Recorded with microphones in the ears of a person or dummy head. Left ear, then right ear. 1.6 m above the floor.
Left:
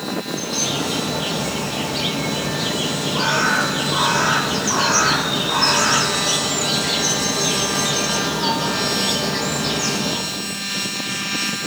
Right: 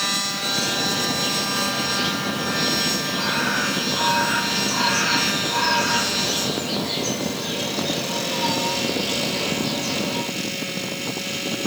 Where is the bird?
60° left (ahead or behind), 1.0 m.